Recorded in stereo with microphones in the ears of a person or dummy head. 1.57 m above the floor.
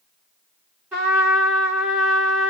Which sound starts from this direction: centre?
A trumpet, at 0.9 s.